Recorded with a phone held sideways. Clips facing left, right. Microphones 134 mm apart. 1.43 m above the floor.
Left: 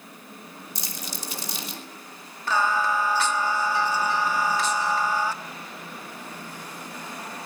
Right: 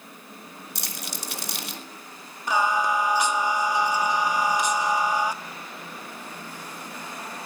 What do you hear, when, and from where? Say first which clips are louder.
0.8 s crumpling: even; 70° right (ahead or behind), 3 m
2.5 s singing: right 1 dB; 15° right (ahead or behind), 1.4 m